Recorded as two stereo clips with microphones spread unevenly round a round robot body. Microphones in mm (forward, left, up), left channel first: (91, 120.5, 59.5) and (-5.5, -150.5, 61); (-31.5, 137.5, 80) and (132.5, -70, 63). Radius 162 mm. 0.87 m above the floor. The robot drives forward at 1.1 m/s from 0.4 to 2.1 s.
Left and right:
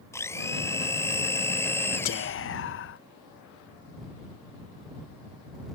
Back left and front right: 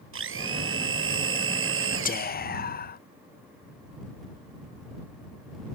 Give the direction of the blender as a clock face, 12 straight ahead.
12 o'clock.